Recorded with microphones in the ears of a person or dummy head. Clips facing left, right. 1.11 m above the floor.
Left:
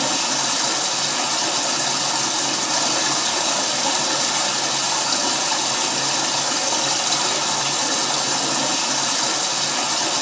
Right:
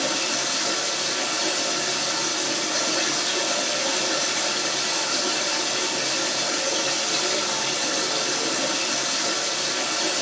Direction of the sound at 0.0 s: 80° left.